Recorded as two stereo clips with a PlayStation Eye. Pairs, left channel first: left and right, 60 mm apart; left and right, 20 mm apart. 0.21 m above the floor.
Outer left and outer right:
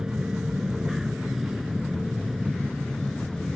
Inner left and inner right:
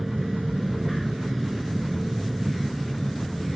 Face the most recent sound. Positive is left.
turn(degrees=5)  # may be behind; listen again after turning